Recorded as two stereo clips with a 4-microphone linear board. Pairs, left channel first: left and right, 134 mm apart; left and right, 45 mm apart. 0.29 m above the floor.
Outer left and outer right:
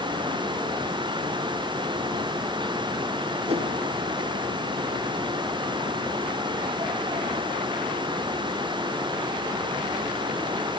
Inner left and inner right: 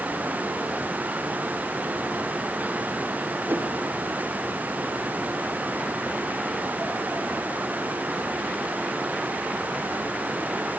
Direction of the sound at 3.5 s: 50° right (ahead or behind).